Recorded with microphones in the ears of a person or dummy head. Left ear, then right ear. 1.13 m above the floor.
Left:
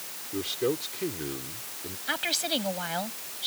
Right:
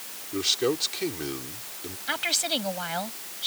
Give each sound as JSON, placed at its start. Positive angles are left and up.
{"t": 0.3, "sound": "a man speaking", "side_deg": -40}
{"t": 2.1, "sound": "a woman speaking", "side_deg": -15}